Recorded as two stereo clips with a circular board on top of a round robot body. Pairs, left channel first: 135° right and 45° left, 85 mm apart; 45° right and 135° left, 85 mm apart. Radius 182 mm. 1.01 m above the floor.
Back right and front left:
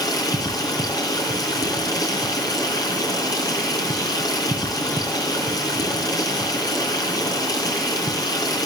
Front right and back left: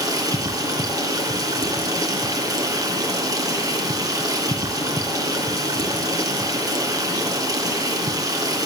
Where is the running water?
Straight behind, 3.5 m.